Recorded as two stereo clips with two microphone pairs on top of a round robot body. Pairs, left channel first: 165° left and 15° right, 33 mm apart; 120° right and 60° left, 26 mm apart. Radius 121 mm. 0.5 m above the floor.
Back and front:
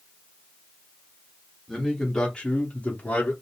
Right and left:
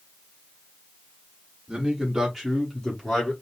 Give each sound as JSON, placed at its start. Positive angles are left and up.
{"t": 1.7, "sound": "a man speaking", "azimuth_deg": 85, "distance_m": 1.1}